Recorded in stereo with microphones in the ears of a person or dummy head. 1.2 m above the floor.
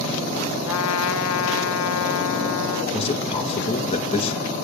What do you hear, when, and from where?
0.7 s a trumpet: 75° left (ahead or behind), 0.9 m
2.9 s a man speaking: 35° left (ahead or behind), 1.9 m